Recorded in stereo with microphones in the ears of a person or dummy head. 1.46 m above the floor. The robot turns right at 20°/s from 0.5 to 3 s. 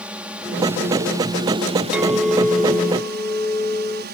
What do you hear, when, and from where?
0.0 s a drone: 175° right; by 4.1 s 125° right
1.9 s a clink: 5° right (ahead or behind); by 4.0 s 15° left (ahead or behind)